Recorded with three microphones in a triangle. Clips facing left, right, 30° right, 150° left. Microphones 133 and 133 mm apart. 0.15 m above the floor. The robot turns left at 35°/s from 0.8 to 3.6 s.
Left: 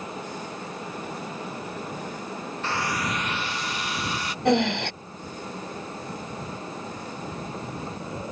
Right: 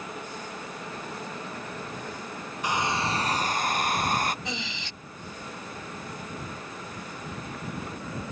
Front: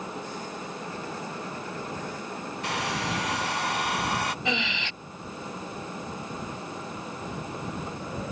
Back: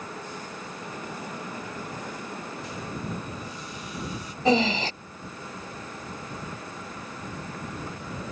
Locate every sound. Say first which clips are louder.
2.6 s a hair dryer: right 2 dB, front 7 dB; 15° right; by 4.3 s 45° right
4.5 s breathing: left 15 dB, back 9 dB; 100° left